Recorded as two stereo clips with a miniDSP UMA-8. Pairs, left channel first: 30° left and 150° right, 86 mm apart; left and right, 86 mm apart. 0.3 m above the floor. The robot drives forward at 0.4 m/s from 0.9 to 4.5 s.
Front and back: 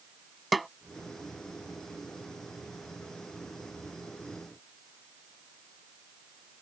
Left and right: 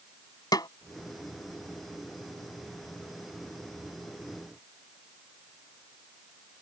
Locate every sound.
0.5 s a snare drum: 120° left